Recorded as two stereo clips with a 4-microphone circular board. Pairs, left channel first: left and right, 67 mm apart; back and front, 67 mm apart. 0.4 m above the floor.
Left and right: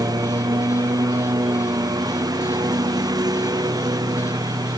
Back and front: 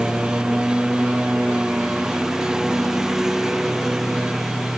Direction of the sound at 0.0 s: 80° right.